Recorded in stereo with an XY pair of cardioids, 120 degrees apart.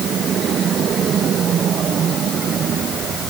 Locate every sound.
Only background noise.